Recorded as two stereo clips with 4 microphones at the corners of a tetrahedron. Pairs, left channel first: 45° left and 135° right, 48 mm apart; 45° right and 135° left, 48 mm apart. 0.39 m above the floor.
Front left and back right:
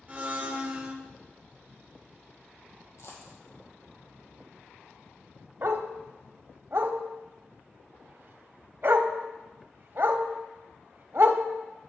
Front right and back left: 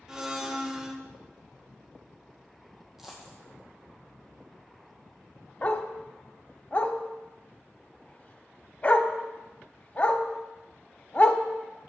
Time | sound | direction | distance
0.1 | a blender | 160° right | 0.7 m
3.0 | a dropped coin | 55° left | 2 m
5.6 | a dog barking | 100° right | 0.6 m